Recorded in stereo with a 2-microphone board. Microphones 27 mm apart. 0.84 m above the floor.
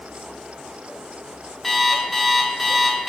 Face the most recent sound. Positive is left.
turn(degrees=5)  # may be behind; listen again after turning